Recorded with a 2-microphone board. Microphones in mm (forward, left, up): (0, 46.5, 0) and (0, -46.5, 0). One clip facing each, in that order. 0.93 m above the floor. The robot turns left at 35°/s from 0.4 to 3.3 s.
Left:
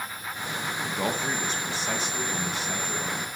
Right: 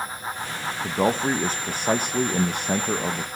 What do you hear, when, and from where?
0.8 s a man speaking: 35° right, 0.8 m; by 3.3 s 120° right, 0.8 m